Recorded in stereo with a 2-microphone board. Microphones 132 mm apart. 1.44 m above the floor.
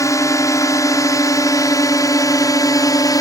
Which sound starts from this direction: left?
A drone, at 0.0 s.